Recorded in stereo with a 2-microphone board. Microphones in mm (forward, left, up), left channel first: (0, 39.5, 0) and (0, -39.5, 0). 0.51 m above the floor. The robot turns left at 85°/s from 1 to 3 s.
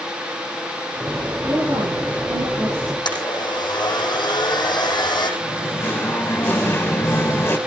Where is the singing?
30° left (ahead or behind), 2.5 m.